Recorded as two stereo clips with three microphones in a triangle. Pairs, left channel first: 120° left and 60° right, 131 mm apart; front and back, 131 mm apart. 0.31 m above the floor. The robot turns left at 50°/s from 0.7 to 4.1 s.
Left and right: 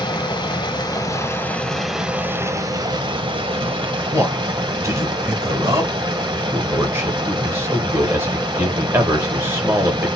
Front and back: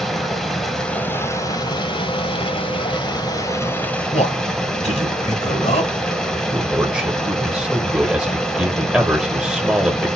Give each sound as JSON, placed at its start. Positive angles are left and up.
{"t": 0.0, "sound": "running water", "azimuth_deg": 85, "distance_m": 1.1}
{"t": 4.1, "sound": "a man speaking", "azimuth_deg": 5, "distance_m": 1.9}
{"t": 6.3, "sound": "a man speaking", "azimuth_deg": -105, "distance_m": 1.3}